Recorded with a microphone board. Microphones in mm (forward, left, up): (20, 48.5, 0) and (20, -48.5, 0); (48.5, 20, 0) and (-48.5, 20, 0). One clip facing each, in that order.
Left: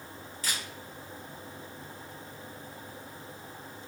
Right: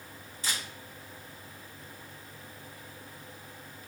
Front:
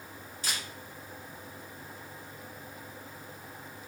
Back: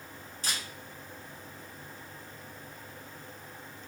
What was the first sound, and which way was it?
A camera shutter, 150° right.